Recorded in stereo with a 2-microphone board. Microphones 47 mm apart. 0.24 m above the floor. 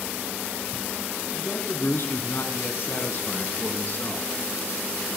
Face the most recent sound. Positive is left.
turn(degrees=40)  # may be behind; listen again after turning